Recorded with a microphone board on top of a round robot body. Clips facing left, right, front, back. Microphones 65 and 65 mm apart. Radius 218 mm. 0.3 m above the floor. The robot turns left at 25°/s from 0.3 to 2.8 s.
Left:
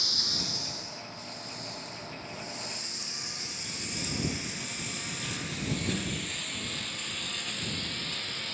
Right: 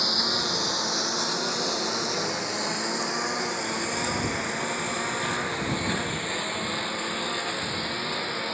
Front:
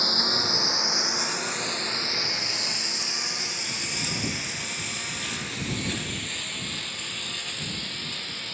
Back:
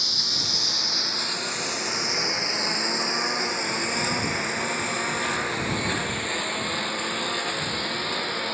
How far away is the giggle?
No giggle in this recording.